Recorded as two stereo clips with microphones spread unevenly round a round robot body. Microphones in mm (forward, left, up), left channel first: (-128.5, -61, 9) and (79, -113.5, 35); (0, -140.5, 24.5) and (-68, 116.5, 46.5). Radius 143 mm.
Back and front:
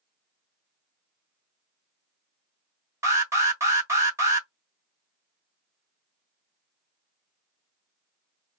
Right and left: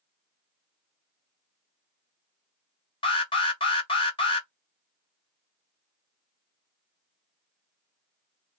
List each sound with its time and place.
3.0 s an alarm: 85° right, 1.7 m